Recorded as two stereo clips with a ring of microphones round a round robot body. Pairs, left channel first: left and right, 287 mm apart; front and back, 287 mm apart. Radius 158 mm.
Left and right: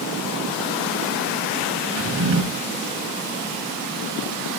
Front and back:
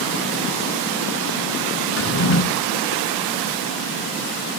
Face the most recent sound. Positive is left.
turn(degrees=-40)